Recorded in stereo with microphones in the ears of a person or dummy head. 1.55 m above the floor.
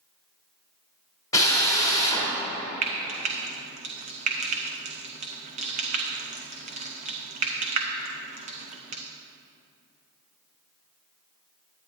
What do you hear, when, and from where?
1.3 s a drill: 25° left (ahead or behind), 2 m
2.8 s frying: 50° right (ahead or behind), 0.7 m